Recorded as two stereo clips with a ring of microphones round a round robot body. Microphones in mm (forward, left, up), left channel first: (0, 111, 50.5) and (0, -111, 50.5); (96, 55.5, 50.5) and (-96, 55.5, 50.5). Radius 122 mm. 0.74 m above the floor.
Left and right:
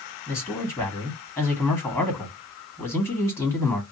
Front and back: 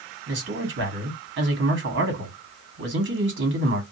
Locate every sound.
0.3 s a man speaking: 170° left, 1.7 m